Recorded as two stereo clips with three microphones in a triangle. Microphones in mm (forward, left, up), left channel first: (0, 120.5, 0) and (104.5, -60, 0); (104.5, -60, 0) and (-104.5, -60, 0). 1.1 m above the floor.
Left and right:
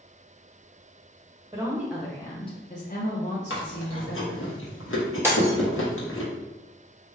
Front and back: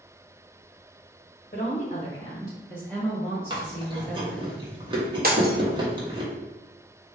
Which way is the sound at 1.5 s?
5° left.